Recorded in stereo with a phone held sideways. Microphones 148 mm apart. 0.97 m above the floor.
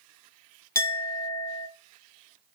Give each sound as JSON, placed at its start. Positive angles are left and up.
{"t": 0.8, "sound": "a clink", "side_deg": 20, "distance_m": 0.8}